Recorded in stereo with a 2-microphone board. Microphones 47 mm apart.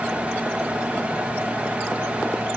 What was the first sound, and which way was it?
Only background noise.